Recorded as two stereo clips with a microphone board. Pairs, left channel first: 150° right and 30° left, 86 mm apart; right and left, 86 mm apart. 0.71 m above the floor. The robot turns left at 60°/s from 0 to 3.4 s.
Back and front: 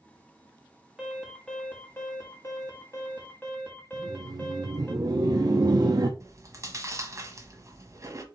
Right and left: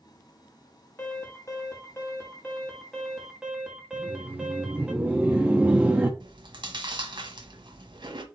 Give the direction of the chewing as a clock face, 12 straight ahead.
9 o'clock.